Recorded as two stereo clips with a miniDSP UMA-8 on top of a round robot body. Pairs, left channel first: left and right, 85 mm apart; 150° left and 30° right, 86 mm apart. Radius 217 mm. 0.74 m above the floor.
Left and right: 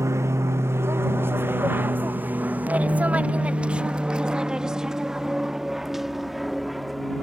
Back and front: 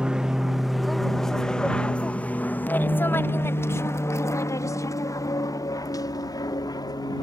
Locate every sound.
0.0 s an aircraft: 100° right; by 7.2 s straight behind